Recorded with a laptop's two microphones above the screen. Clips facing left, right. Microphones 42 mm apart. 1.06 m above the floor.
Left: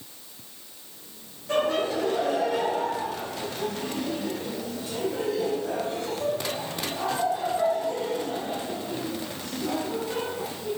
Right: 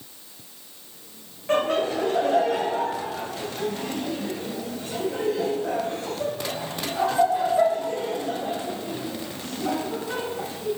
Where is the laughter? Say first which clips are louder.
Right 2 dB; 50° right (ahead or behind), 0.8 m.